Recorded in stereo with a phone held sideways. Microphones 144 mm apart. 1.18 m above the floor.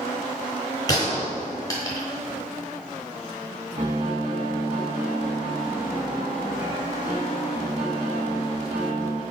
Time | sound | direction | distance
0.9 | a gunshot | 25° left (ahead or behind) | 1.0 m
3.8 | a piano | 30° right (ahead or behind) | 1.4 m